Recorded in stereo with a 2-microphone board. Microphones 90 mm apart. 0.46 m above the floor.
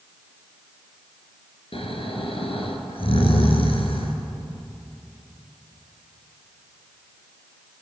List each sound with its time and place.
1.7 s snoring: 85° left, 3 m